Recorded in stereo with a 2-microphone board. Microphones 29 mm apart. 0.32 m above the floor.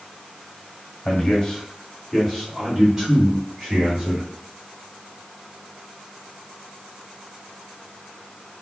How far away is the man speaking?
About 1.5 m.